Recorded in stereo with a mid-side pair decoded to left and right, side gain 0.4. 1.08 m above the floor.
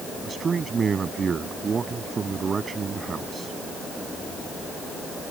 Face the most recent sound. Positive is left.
turn(degrees=-40)